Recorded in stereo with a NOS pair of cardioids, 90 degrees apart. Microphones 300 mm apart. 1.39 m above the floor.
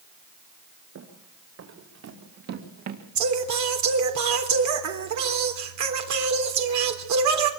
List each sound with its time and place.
0.9 s running footsteps: 55° right, 7.5 m; by 3.0 s 70° right, 4.5 m
3.1 s singing: 65° right, 3.5 m